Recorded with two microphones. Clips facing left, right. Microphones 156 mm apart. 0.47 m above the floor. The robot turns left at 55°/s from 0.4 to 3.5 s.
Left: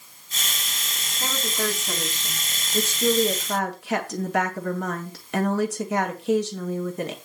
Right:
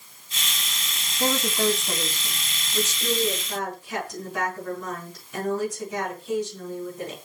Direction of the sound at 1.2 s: 150° right.